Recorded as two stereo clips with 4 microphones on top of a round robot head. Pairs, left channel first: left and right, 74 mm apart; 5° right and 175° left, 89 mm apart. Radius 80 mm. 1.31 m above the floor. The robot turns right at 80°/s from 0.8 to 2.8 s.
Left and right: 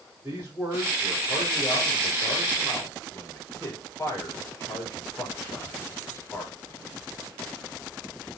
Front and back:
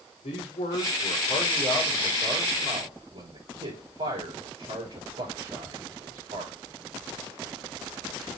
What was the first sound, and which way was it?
A man speaking, 5° right.